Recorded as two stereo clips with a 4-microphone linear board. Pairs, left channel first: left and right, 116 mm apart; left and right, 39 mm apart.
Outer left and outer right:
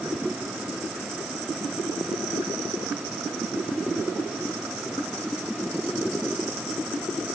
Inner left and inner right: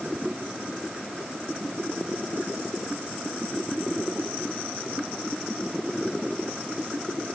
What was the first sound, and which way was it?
Only background noise.